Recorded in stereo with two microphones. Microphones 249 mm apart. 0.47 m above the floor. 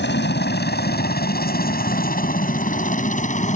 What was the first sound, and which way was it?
A helicopter, 45° left (ahead or behind).